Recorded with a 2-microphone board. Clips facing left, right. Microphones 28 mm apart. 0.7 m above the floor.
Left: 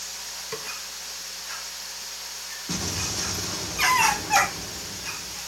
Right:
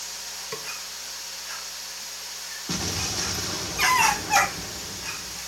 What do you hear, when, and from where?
0.5 s a snare drum: centre (ahead or behind), 1.3 m
2.7 s an explosion: 15° right (ahead or behind), 1.1 m